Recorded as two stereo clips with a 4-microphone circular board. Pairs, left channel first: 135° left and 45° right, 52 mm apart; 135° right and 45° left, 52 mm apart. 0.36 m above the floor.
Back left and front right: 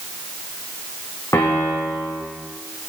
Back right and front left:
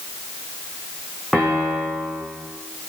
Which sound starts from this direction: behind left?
A piano, at 1.3 s.